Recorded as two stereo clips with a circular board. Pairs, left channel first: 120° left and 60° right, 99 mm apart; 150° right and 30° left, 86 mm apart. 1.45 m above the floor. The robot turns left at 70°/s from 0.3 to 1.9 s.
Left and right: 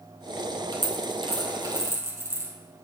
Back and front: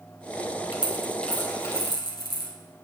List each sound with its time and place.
0.7 s a dropped coin: 35° right, 3 m; by 2.5 s 120° right, 3 m